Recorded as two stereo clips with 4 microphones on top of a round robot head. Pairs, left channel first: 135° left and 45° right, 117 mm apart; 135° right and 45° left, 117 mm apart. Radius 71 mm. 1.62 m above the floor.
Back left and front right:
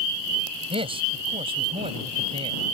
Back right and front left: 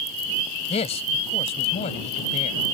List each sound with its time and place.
0.7 s a man speaking: 95° right